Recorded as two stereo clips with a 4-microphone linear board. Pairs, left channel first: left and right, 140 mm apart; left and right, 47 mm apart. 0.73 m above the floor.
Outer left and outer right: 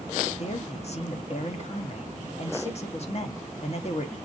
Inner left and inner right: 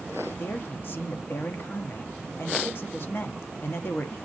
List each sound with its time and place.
0.4 s a man speaking: 50° left (ahead or behind), 0.8 m